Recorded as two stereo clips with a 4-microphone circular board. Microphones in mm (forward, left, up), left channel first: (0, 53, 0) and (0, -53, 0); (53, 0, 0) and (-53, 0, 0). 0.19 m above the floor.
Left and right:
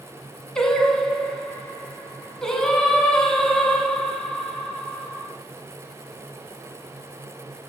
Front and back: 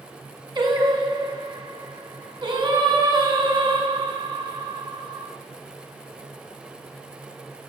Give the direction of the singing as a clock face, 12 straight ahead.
6 o'clock.